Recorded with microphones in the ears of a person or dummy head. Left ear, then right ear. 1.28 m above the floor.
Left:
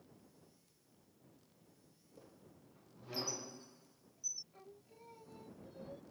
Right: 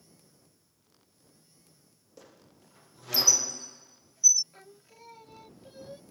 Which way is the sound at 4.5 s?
60° right (ahead or behind).